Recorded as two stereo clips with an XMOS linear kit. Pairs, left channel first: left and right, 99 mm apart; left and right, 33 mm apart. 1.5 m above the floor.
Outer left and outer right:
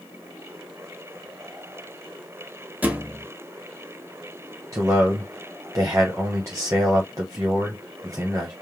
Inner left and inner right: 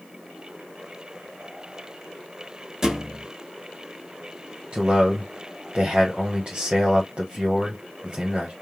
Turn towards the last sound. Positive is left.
turn(degrees=-30)  # may be behind; listen again after turning